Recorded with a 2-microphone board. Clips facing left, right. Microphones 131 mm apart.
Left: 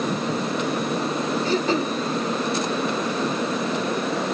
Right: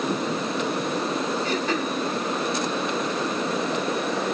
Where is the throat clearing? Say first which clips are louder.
Left 3 dB; 30° left (ahead or behind), 0.6 m.